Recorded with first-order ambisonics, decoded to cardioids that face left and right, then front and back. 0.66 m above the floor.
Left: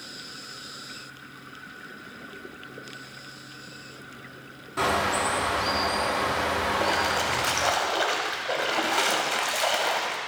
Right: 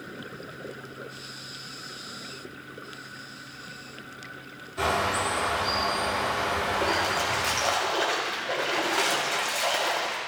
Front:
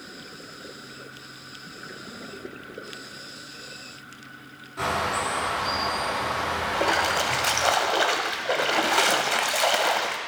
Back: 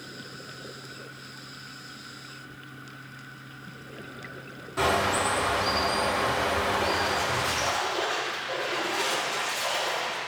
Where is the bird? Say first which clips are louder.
Left 1 dB, back 1 dB; 125° left, 1.7 m.